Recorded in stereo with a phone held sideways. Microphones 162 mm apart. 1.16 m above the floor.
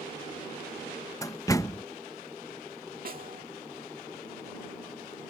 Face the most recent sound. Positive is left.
turn(degrees=-60)  # may be behind; listen again after turning